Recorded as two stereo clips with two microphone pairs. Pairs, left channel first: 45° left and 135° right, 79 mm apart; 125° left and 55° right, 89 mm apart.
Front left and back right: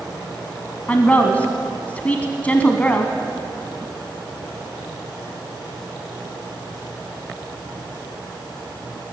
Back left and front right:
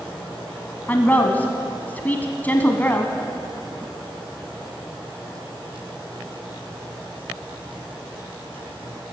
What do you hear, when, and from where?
0.9 s a woman speaking: 90° left, 1.1 m